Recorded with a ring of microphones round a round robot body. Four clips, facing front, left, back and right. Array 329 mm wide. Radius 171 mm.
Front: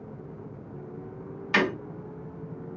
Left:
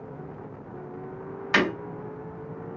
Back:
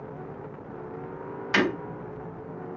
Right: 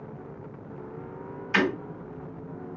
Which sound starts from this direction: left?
Breaking glass, at 1.5 s.